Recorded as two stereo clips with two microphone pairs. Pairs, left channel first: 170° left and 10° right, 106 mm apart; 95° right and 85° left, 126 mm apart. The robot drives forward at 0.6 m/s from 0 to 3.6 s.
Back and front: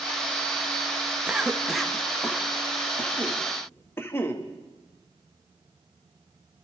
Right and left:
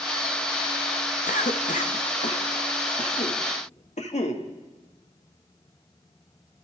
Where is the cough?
90° right, 2 m; by 4.4 s 125° right, 2.5 m.